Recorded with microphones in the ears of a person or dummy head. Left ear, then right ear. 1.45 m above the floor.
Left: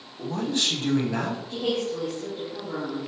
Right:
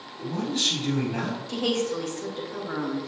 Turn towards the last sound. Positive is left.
turn(degrees=-65)  # may be behind; listen again after turning